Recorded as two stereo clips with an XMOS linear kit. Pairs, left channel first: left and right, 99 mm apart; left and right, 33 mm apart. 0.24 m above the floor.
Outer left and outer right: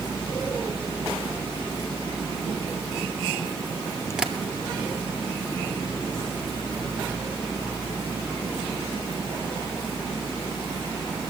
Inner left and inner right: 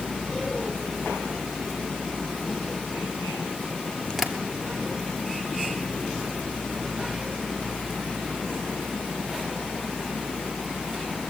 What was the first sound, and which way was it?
Tapping, 5° right (ahead or behind).